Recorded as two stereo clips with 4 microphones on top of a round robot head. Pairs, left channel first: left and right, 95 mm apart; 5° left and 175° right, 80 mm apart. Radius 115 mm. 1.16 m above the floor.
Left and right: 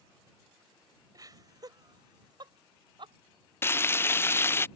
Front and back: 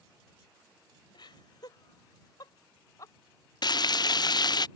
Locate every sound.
1.1 s laughter: 40° right; by 3.1 s 55° right
3.6 s frying: 25° left